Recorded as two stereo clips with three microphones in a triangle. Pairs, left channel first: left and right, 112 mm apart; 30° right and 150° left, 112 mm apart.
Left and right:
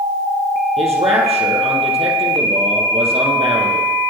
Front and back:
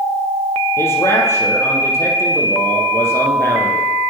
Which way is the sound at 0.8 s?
95° right.